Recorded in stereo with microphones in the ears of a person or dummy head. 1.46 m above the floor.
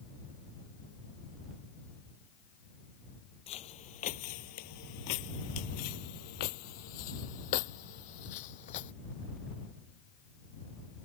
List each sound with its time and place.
3.5 s footsteps: 25° left (ahead or behind); by 8.9 s 40° left (ahead or behind)